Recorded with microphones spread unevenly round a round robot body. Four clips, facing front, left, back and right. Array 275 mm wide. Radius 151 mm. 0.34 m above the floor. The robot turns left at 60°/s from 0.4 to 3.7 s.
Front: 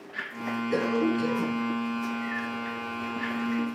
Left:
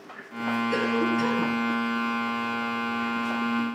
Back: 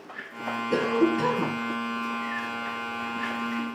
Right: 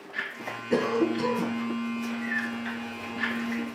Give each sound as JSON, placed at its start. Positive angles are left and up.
{"t": 0.7, "sound": "a cough", "azimuth_deg": -140, "distance_m": 4.0}